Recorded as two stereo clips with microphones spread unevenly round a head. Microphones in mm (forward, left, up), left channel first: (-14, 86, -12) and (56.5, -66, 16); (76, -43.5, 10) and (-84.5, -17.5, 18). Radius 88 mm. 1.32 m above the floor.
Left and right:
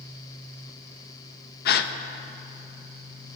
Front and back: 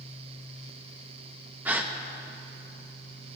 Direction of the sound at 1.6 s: 95° left.